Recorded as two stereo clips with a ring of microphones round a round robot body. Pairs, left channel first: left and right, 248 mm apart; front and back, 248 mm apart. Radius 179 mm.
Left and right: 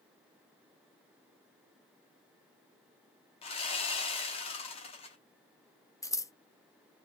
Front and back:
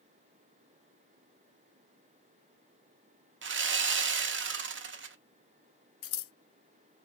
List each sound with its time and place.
3.4 s sawing: 155° left, 0.7 m
6.0 s scissors: 10° left, 0.6 m